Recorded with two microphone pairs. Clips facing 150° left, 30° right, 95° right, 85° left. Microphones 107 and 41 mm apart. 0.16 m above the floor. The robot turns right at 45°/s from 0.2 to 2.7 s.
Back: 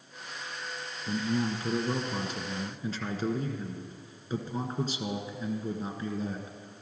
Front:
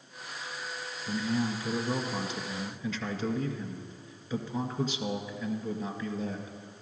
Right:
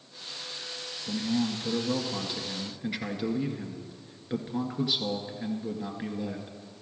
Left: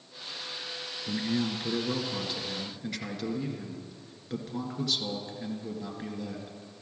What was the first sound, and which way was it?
A man speaking, 110° left.